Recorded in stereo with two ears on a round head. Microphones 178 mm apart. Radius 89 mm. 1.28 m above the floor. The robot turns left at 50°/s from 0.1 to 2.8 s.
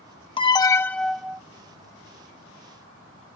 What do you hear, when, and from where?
0.4 s an alarm: 40° left; by 1.4 s 15° right